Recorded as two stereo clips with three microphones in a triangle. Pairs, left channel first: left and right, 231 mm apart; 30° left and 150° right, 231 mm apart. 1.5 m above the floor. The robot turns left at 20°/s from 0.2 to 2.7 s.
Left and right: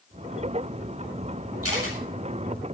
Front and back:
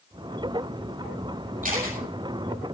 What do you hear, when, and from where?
1.6 s a camera shutter: 95° right, 7.5 m; by 2.0 s 105° right, 7.5 m